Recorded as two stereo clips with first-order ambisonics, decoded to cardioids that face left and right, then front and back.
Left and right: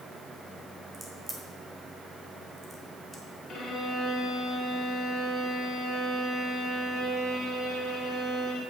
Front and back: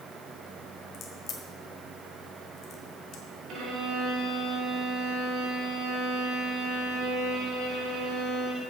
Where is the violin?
150° left, 3 m.